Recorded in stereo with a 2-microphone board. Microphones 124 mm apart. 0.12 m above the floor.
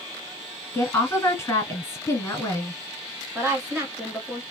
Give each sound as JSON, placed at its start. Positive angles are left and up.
{"t": 0.7, "sound": "a woman speaking", "side_deg": 20, "distance_m": 1.2}
{"t": 3.4, "sound": "a woman speaking", "side_deg": -20, "distance_m": 1.5}